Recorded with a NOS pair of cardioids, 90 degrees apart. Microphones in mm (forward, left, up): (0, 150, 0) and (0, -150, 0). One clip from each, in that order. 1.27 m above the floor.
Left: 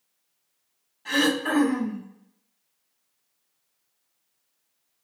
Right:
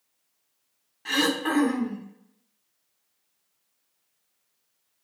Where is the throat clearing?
30° right, 2.5 m.